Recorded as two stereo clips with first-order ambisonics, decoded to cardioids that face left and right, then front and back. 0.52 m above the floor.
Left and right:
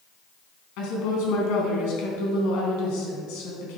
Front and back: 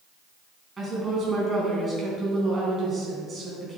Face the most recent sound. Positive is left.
turn(degrees=100)